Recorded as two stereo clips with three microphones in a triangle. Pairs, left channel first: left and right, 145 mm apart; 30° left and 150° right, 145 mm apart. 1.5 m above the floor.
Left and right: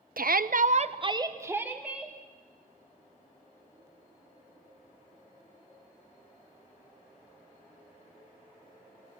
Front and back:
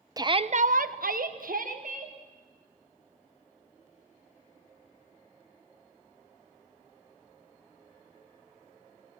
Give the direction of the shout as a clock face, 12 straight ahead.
3 o'clock.